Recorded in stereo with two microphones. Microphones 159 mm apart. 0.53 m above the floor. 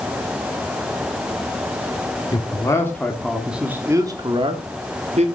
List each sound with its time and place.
2.3 s a man speaking: 25° left (ahead or behind), 1.7 m; by 5.3 s 50° right (ahead or behind), 2.0 m